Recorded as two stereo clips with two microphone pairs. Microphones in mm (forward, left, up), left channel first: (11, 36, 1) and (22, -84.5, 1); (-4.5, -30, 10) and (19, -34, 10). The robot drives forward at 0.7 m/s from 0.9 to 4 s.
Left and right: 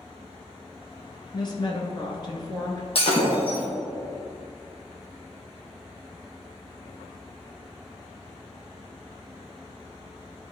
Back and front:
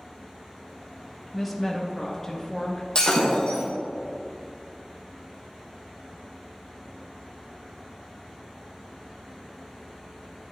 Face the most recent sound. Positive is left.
turn(degrees=140)